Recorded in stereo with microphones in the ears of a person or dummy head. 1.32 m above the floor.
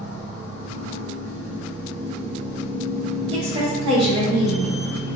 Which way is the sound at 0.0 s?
45° right (ahead or behind).